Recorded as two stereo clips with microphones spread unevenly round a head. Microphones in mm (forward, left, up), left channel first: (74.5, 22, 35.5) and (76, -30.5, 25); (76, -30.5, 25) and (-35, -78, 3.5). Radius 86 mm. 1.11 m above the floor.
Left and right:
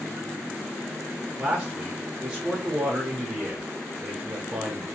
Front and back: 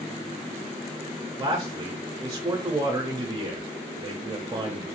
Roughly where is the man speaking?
Behind right.